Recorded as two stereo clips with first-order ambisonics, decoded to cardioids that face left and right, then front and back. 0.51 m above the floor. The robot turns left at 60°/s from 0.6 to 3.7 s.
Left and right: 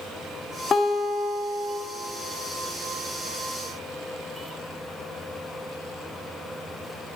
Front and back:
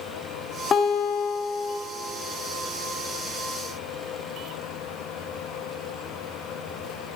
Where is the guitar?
30° left, 1.3 m; by 1.8 s 30° right, 1.3 m.